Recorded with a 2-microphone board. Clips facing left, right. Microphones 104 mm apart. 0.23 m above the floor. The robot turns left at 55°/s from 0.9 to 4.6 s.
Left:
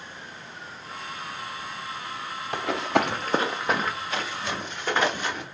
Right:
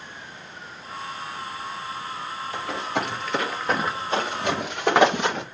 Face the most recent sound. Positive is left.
turn(degrees=-85)